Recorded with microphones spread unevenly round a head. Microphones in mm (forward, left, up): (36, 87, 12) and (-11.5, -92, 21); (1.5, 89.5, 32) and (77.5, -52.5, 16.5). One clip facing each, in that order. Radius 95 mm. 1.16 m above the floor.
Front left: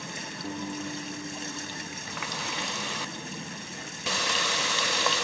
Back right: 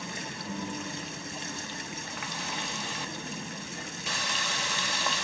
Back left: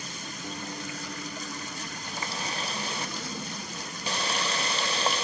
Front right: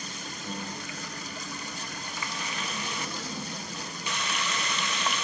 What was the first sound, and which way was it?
A guitar, 45° left.